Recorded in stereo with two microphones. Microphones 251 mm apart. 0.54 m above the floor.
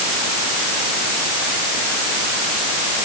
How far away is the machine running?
I don't hear a machine running.